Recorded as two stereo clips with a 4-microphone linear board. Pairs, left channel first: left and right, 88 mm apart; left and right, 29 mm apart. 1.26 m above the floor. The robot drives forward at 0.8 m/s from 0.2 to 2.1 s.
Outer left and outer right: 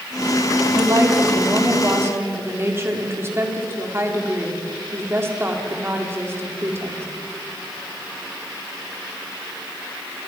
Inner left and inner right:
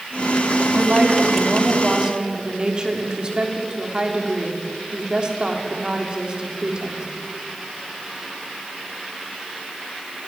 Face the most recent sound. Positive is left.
turn(degrees=-30)  # may be behind; listen again after turning